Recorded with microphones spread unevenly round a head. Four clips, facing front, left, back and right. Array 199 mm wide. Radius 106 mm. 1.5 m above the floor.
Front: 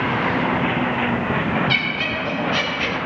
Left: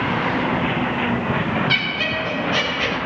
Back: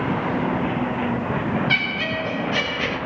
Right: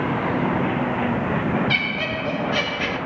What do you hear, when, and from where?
1.7 s laughter: 165° left, 1.9 m